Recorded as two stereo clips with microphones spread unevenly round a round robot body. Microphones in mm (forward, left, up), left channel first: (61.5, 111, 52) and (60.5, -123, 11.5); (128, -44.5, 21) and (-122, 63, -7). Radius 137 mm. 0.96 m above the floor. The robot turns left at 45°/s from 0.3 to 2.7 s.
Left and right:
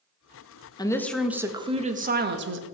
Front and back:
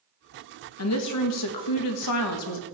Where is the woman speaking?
15° left, 1.2 m; by 2.6 s 70° right, 1.2 m.